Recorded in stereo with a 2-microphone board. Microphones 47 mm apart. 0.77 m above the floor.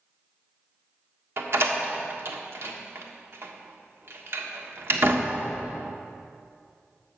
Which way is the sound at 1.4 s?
65° right (ahead or behind).